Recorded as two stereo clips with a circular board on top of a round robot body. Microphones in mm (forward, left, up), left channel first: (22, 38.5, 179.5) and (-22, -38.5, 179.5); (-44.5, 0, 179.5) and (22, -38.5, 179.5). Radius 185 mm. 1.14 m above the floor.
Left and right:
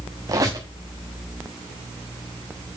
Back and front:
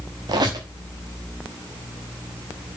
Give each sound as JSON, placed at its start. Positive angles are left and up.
{"t": 0.3, "sound": "a squeak", "azimuth_deg": -65, "distance_m": 0.9}